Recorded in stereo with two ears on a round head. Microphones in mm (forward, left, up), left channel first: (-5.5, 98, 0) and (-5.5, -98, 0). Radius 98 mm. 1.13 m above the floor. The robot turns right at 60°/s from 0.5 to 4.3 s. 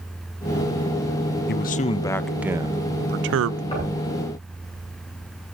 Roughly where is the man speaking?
Behind left.